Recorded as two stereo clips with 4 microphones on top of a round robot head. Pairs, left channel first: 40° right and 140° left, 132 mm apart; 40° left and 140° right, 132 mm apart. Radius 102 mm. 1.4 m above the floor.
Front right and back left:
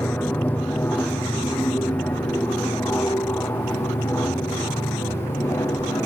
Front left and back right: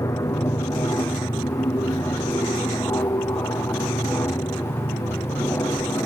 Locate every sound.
0.0 s an aircraft: 20° left; by 6.1 s straight ahead